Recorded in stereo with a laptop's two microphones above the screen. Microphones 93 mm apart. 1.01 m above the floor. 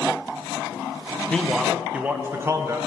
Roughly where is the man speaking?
Centre.